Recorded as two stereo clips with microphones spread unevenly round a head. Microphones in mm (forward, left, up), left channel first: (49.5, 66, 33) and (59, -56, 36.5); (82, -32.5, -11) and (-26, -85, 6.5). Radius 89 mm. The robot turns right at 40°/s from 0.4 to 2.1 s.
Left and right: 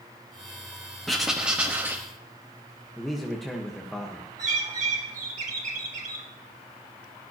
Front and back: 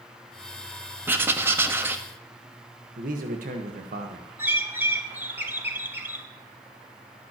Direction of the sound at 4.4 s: 90° right.